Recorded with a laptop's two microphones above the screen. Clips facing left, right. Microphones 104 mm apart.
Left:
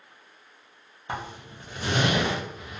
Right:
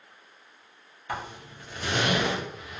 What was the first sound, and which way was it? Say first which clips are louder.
A zipper: even; 25° left (ahead or behind).